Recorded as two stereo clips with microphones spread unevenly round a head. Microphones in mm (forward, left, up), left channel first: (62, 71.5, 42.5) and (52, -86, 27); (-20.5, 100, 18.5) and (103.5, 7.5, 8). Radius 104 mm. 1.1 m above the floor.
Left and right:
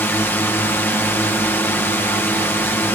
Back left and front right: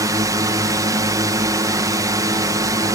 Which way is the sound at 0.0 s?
10° left.